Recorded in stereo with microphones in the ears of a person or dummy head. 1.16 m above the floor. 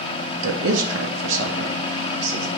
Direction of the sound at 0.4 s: 85° right.